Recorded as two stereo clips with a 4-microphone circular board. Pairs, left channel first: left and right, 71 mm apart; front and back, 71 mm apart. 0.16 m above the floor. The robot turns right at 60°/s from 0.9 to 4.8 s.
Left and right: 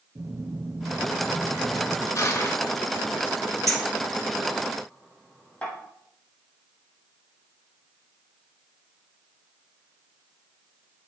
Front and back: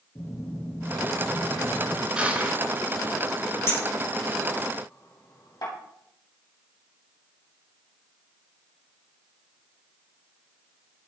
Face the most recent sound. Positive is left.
turn(degrees=15)